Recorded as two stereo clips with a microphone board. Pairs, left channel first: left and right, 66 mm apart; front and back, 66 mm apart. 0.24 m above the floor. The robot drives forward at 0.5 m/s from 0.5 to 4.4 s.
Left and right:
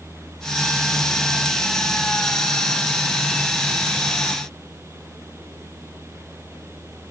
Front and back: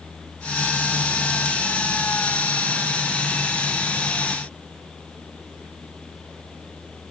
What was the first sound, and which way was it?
Only background noise.